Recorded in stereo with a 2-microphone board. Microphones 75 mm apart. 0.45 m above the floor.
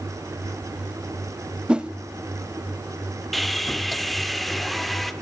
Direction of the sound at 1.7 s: 10° right (ahead or behind).